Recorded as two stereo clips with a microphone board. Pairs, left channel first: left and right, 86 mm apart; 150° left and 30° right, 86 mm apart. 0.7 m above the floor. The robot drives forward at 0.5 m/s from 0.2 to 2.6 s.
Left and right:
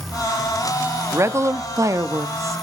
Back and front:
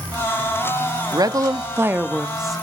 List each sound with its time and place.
1.1 s a woman speaking: 45° right, 0.8 m; by 2.6 s 125° right, 0.8 m